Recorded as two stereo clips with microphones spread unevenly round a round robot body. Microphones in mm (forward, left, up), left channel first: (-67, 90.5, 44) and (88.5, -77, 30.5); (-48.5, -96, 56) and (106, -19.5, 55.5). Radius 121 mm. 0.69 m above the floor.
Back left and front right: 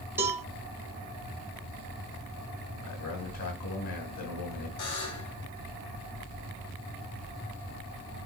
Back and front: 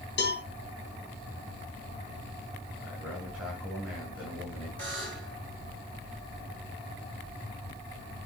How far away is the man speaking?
About 7.5 m.